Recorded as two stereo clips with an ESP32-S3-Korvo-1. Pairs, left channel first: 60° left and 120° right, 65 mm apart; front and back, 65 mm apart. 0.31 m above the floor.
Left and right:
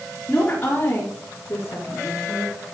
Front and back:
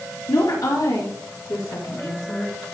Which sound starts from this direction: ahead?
A woman speaking, at 0.3 s.